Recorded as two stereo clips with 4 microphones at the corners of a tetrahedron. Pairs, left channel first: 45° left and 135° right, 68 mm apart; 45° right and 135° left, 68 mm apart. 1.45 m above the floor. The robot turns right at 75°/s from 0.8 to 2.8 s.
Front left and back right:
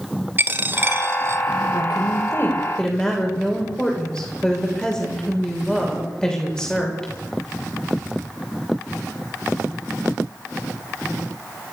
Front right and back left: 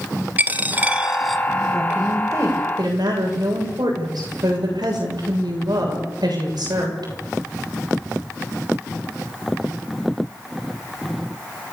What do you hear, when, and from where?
0.4 s a dropped coin: 175° right, 1.3 m; by 1.4 s 130° right, 1.3 m
1.7 s a woman speaking: 45° left, 7 m; by 7.1 s 125° left, 7 m